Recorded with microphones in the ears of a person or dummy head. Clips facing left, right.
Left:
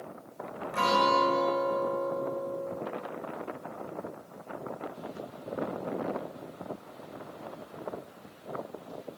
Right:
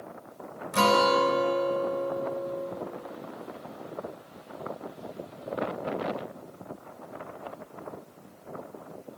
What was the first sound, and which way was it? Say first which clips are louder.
A guitar: right 4 dB; 55° right (ahead or behind).